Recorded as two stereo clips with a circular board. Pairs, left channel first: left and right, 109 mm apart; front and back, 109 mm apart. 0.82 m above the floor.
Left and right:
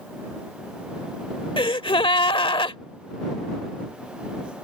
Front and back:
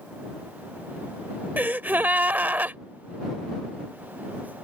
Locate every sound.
1.6 s a gasp: 110° left